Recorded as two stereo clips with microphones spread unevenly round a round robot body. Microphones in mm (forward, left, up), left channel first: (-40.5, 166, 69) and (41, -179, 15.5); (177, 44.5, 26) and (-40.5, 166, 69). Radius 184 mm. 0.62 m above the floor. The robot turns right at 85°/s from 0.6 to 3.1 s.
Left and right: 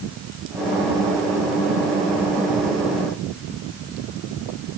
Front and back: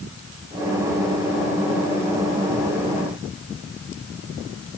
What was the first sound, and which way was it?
Only background noise.